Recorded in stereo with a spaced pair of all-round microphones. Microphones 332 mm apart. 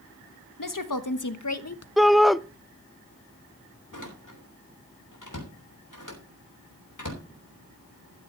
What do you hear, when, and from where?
0.6 s a woman speaking: 75° left (ahead or behind), 1.3 m; by 1.9 s 45° left (ahead or behind), 1.1 m
2.0 s a shout: centre (ahead or behind), 0.5 m
3.9 s a door slam: 70° left (ahead or behind), 3.5 m